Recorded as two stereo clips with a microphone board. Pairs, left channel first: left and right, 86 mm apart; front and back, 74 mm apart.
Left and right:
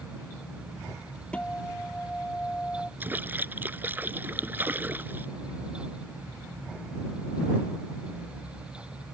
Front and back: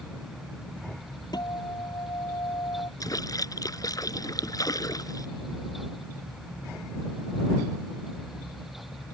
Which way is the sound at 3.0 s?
25° right.